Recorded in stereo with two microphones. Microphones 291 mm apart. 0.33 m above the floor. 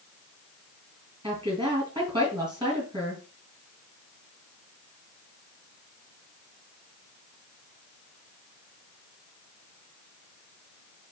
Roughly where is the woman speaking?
Centre.